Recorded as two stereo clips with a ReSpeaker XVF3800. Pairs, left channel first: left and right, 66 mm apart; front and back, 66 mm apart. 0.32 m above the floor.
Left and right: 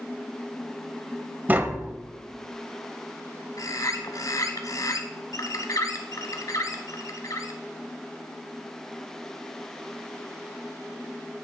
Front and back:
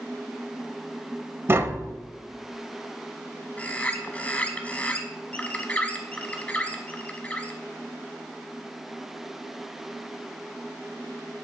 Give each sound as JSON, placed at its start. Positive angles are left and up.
{"t": 1.5, "sound": "tapping", "azimuth_deg": -140, "distance_m": 0.7}
{"t": 3.6, "sound": "a bird", "azimuth_deg": 65, "distance_m": 1.0}